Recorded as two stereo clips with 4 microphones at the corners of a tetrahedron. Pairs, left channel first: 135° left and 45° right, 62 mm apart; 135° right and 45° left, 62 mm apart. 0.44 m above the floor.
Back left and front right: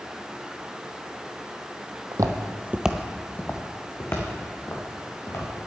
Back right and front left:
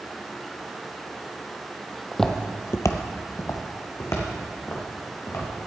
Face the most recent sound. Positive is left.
turn(degrees=180)